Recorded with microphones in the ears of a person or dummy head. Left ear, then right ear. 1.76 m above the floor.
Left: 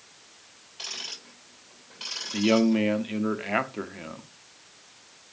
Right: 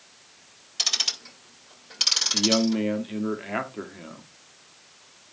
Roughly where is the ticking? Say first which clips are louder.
Right 11 dB; right.